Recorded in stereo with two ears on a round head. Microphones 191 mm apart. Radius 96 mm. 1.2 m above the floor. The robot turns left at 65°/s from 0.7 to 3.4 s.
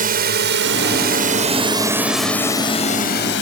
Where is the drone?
45° right (ahead or behind); by 3.4 s 60° left (ahead or behind).